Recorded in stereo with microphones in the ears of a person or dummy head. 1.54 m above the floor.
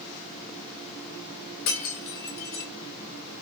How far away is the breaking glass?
About 2.5 m.